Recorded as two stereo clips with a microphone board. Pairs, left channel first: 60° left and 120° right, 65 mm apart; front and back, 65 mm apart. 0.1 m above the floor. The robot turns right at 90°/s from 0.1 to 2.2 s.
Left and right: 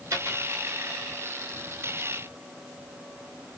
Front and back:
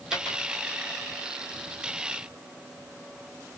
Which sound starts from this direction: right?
A dropped coin, at 0.1 s.